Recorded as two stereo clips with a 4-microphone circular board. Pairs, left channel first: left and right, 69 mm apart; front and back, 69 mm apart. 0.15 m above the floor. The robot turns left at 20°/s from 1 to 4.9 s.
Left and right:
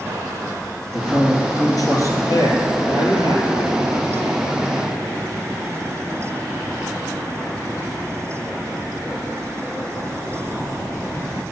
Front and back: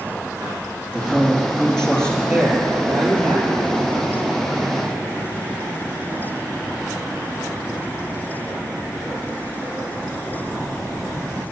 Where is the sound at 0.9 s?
100° left, 2.5 m; by 2.1 s 75° left, 2.5 m.